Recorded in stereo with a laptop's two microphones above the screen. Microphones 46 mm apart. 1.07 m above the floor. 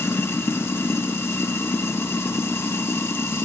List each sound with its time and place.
0.0 s running water: 60° left (ahead or behind), 1.1 m